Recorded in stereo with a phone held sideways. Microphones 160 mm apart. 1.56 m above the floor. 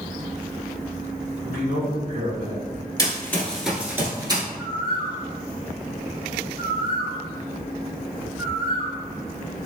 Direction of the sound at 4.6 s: 60° right (ahead or behind).